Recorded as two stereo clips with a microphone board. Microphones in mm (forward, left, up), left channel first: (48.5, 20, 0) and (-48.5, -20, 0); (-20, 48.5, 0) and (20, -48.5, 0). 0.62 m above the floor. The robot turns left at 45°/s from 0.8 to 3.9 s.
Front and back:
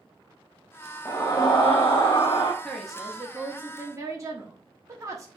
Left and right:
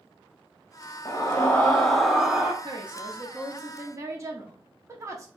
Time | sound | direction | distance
1.1 | a scream | 70° left | 0.7 m
2.6 | a woman speaking | 55° right | 1.1 m